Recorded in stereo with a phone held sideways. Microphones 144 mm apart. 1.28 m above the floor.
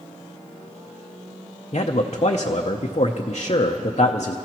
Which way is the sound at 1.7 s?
50° left (ahead or behind).